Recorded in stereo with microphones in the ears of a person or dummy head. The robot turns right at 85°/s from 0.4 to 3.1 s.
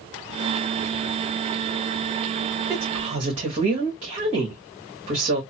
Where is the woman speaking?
Straight behind, 1.8 m; by 5.4 s 145° right, 1.8 m.